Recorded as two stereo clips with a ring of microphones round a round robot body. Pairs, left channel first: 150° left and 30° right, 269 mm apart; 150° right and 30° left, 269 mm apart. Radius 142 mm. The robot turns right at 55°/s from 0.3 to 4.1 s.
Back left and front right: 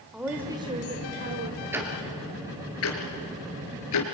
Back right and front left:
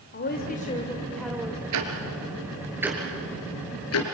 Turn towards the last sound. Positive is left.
turn(degrees=180)